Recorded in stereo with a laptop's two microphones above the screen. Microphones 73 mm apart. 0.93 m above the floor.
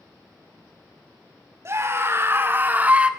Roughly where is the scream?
Right.